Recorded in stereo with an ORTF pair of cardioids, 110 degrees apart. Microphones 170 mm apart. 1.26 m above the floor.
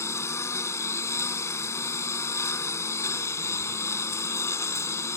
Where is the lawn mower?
20° left.